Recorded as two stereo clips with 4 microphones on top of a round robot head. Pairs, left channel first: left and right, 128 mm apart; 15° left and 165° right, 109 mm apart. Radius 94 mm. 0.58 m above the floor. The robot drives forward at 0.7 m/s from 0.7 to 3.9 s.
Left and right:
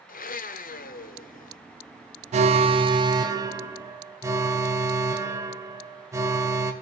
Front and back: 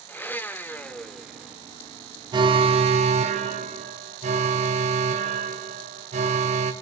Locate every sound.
0.1 s a blender: 85° left, 1.2 m; by 1.6 s 115° left, 1.3 m
2.3 s an alarm: 120° right, 0.7 m; by 6.7 s 160° right, 1.5 m